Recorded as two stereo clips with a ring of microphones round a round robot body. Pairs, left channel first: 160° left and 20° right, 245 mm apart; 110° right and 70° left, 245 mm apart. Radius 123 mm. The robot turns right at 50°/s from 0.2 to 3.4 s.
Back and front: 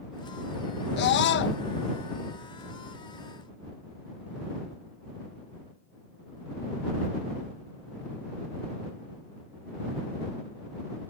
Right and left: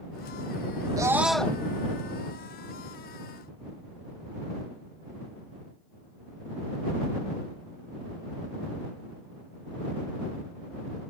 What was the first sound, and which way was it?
A scream, 140° left.